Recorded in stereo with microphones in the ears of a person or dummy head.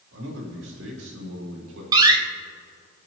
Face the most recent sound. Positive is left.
turn(degrees=-25)  # may be behind; listen again after turning